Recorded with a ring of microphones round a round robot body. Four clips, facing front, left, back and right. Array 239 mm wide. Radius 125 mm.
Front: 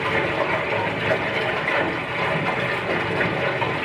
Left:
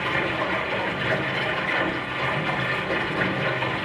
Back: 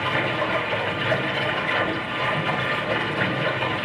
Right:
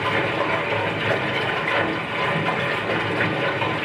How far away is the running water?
About 7 m.